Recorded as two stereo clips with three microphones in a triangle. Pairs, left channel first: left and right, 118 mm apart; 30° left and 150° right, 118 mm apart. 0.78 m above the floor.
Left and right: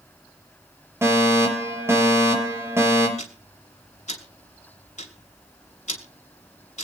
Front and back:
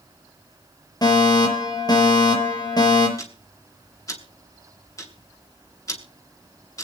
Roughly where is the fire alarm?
Ahead right.